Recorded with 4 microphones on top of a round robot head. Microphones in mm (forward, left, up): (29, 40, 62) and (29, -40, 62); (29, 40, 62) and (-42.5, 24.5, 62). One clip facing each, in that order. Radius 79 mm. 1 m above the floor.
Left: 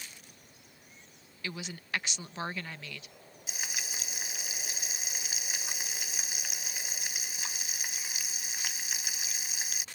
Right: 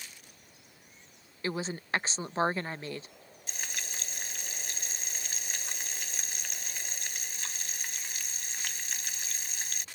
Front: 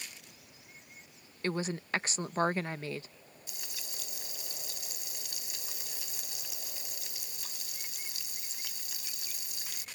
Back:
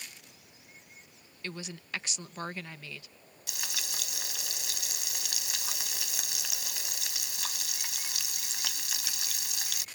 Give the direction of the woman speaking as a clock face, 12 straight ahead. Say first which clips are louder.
Right 7 dB, front 8 dB; 1 o'clock.